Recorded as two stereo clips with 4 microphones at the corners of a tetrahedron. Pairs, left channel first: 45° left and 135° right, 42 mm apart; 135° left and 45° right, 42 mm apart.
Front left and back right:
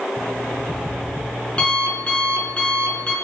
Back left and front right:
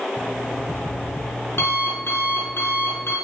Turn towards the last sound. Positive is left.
turn(degrees=110)